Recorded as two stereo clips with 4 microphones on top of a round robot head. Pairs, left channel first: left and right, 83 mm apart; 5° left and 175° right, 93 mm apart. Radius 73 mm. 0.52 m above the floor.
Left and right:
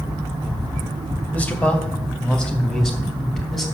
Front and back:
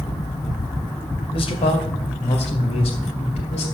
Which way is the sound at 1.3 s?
20° left.